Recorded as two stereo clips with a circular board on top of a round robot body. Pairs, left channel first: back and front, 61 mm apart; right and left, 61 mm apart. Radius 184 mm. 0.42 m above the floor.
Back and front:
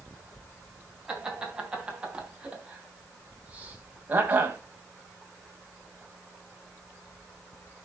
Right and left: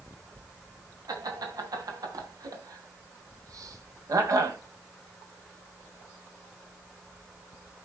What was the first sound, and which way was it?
Laughter, 80° left.